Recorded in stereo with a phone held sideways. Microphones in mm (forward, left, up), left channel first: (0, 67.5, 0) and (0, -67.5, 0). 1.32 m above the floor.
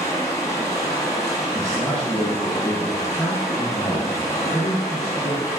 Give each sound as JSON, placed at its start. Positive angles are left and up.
{"t": 0.0, "sound": "running water", "side_deg": 25, "distance_m": 1.5}
{"t": 1.5, "sound": "a man speaking", "side_deg": 15, "distance_m": 1.1}